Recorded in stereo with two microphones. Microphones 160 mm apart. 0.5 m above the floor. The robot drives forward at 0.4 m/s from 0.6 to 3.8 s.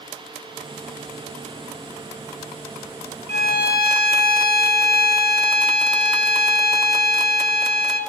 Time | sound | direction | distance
3.3 | a violin | 75° left (ahead or behind) | 0.6 m